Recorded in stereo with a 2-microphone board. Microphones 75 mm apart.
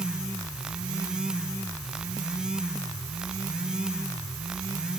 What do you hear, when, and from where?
Only background noise.